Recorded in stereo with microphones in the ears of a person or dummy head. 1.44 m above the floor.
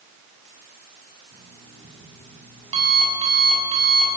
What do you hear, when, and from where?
1.3 s an alarm clock: 30° right (ahead or behind), 7.5 m